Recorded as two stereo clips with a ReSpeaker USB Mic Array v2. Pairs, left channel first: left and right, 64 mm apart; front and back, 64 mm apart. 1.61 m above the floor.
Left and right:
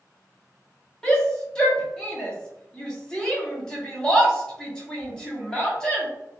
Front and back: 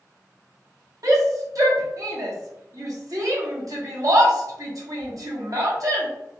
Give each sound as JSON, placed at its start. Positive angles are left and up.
{"t": 1.0, "sound": "a shout", "azimuth_deg": 165, "distance_m": 0.9}